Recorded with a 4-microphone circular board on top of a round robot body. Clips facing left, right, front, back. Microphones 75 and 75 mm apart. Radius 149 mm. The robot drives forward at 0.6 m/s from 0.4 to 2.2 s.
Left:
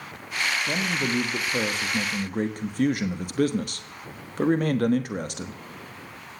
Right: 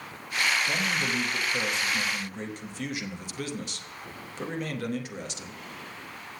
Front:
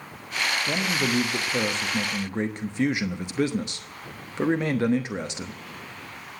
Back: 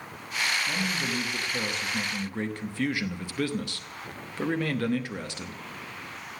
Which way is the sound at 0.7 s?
35° left.